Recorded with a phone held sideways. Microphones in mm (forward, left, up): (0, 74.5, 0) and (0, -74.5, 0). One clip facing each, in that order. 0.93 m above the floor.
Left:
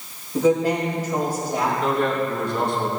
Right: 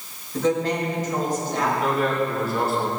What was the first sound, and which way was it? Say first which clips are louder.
A woman speaking: left 3 dB; 10° left (ahead or behind).